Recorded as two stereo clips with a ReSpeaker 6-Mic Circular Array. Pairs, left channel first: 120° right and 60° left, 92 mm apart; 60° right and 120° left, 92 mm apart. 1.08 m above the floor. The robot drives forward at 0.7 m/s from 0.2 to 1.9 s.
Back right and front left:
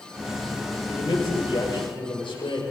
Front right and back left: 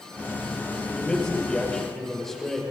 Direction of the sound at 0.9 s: 140° right.